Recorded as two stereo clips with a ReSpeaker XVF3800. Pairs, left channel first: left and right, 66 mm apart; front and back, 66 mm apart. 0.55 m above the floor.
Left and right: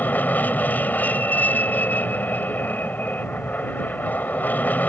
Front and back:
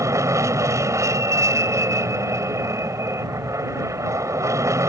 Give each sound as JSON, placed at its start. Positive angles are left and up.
{"t": 0.0, "sound": "an aircraft", "azimuth_deg": 150}